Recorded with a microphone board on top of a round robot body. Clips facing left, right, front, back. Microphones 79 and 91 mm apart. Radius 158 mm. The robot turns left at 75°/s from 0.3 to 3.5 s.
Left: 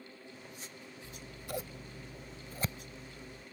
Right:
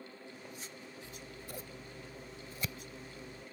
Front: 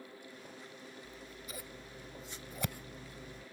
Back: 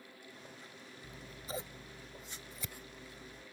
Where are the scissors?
150° left; by 3.4 s 30° right.